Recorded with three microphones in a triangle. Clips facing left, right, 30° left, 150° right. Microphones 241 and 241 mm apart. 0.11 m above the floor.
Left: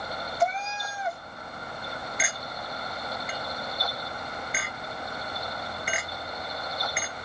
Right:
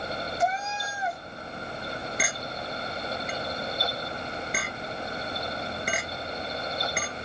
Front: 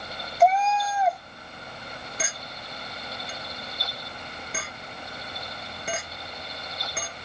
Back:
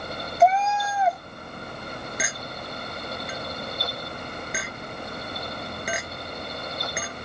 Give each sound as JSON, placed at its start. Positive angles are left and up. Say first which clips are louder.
{"t": 0.4, "sound": "a cat meowing", "louder": "left 2 dB, back 1 dB", "azimuth_deg": 120, "distance_m": 0.5}
{"t": 2.2, "sound": "a clink", "louder": "right 3 dB, back 4 dB", "azimuth_deg": -80, "distance_m": 1.2}